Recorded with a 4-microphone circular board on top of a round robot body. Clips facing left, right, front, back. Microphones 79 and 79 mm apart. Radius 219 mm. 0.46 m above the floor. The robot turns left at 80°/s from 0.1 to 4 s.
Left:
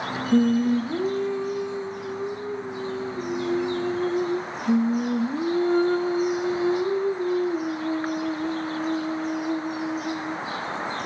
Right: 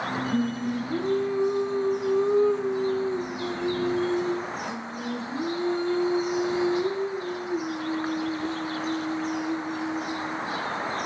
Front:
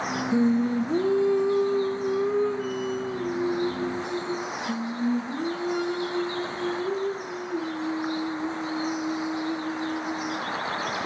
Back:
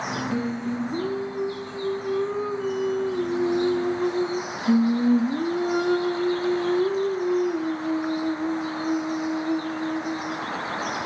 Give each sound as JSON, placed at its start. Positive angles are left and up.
{"t": 0.3, "sound": "singing", "azimuth_deg": 70, "distance_m": 1.0}